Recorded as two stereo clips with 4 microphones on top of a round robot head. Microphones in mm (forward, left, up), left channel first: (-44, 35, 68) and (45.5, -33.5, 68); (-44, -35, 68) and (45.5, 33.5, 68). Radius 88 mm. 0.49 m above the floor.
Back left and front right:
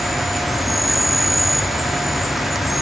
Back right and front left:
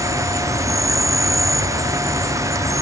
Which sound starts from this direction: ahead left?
An insect, at 0.0 s.